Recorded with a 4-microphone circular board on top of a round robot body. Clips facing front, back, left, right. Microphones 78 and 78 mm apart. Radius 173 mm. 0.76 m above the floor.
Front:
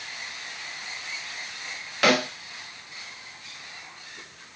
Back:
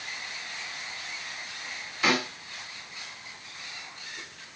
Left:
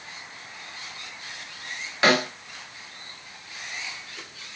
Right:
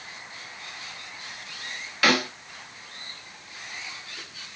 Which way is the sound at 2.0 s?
25° left.